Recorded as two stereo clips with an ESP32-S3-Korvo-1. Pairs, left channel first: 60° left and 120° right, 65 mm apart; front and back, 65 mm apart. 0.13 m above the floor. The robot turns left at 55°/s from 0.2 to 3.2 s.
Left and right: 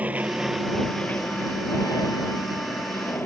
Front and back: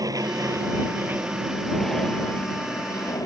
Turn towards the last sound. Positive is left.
turn(degrees=10)